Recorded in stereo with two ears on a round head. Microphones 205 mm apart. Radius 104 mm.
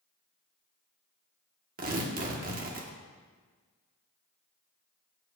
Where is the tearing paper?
40° right (ahead or behind), 1.4 m.